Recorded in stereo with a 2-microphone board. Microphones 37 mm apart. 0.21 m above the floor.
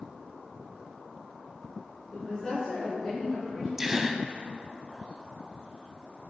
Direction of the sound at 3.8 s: 10° right (ahead or behind).